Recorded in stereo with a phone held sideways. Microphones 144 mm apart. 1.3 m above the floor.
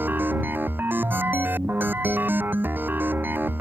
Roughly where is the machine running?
Centre.